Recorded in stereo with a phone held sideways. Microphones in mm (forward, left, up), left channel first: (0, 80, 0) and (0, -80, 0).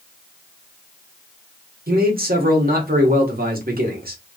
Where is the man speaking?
70° right (ahead or behind), 1.2 m.